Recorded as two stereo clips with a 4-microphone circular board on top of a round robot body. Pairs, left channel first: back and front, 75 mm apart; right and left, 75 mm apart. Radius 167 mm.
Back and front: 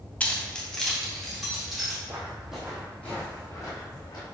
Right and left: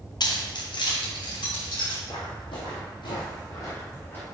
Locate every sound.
0.2 s keys jangling: 110° right, 1.1 m; by 2.0 s 90° right, 3 m
2.1 s footsteps: 70° right, 2.5 m; by 4.2 s 155° right, 2.5 m